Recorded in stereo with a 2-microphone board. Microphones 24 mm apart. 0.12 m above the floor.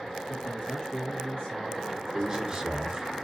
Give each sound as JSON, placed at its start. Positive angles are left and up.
{"t": 0.3, "sound": "a man speaking", "side_deg": 45, "distance_m": 1.7}
{"t": 2.1, "sound": "a man speaking", "side_deg": -25, "distance_m": 2.0}